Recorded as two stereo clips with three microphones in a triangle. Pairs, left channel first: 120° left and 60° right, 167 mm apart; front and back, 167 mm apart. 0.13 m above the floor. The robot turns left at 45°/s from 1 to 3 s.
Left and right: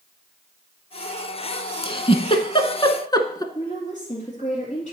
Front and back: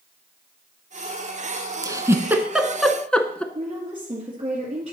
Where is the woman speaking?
145° left, 2 m.